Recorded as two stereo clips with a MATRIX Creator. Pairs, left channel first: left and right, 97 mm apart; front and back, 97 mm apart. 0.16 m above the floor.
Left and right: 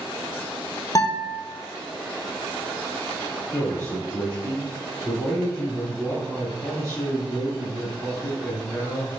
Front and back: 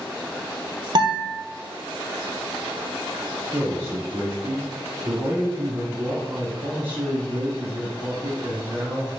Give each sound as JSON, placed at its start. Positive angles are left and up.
{"t": 0.9, "sound": "a guitar", "azimuth_deg": 140, "distance_m": 1.1}
{"t": 3.5, "sound": "a man speaking", "azimuth_deg": 125, "distance_m": 1.5}